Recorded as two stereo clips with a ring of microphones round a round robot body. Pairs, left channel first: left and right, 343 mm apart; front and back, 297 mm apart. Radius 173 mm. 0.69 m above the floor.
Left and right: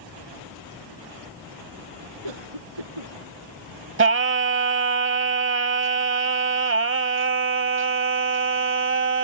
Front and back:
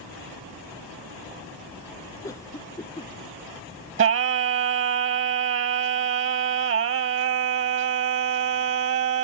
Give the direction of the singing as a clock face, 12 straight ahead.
5 o'clock.